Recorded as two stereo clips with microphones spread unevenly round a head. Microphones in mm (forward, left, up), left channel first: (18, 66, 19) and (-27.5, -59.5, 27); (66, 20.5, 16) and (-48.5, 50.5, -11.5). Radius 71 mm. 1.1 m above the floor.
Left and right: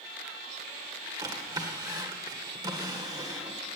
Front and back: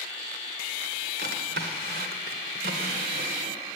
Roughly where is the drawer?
Behind.